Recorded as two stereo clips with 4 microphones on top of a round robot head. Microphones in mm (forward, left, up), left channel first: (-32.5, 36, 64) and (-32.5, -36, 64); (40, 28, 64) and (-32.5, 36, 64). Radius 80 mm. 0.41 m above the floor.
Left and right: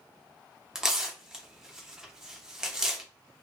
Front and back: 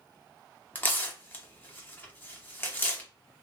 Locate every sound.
0.8 s tearing paper: 20° right, 0.7 m